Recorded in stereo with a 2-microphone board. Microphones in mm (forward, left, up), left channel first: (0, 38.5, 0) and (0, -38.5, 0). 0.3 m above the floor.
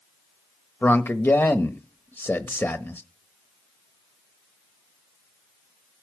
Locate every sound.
0.8 s a man speaking: 30° left (ahead or behind), 1.0 m